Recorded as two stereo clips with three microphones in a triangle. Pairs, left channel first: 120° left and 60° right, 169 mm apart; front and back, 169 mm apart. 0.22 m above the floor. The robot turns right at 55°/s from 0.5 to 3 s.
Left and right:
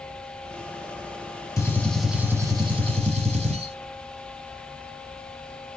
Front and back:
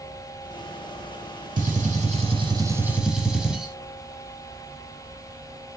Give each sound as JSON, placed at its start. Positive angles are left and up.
{"t": 1.6, "sound": "a gunshot", "azimuth_deg": -175, "distance_m": 1.1}